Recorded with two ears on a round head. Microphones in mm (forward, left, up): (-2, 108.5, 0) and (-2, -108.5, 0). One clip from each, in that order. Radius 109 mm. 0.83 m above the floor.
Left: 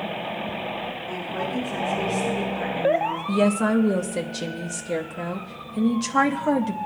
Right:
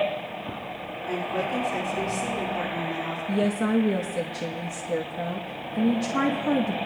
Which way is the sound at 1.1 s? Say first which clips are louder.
Right 4 dB; 65° right (ahead or behind).